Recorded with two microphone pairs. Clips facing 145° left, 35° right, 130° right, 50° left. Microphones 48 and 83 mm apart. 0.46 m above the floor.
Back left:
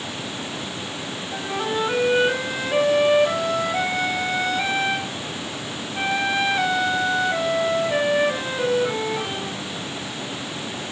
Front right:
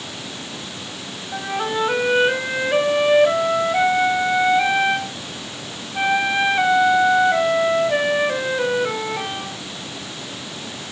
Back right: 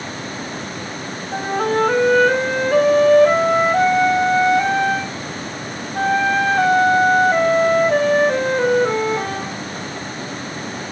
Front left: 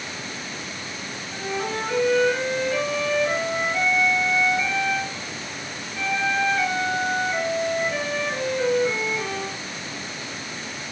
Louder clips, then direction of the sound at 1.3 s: Front right 2 dB, back right 9 dB; 105° right.